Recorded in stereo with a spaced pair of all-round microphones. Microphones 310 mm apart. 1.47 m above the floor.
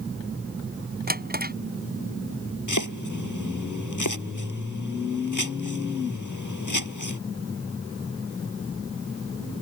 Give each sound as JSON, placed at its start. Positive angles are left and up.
{"t": 1.1, "sound": "a drawer", "side_deg": -30}
{"t": 2.7, "sound": "chopping", "side_deg": 65}